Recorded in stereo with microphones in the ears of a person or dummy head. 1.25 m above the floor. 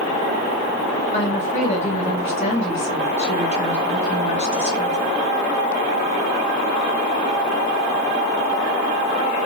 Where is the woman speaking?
30° left (ahead or behind), 1.2 m.